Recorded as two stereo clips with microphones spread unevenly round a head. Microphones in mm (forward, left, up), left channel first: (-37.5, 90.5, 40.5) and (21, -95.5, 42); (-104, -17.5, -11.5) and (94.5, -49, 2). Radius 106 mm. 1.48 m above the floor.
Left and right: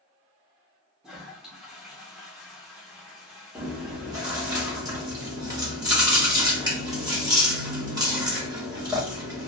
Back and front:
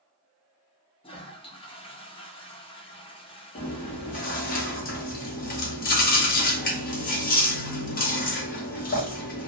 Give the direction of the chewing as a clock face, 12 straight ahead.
5 o'clock.